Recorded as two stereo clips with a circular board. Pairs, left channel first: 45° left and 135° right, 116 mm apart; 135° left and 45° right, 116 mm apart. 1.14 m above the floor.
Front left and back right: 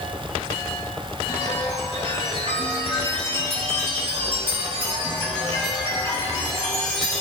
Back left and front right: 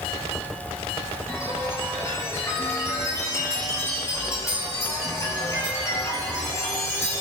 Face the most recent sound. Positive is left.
turn(degrees=-160)